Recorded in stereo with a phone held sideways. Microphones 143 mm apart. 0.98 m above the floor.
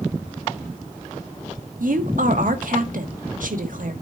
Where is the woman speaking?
70° right (ahead or behind), 1.4 m.